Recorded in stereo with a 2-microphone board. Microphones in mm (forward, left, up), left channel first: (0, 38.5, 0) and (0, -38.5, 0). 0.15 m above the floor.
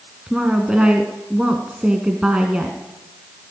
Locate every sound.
0.3 s a woman speaking: 10° right (ahead or behind), 1.3 m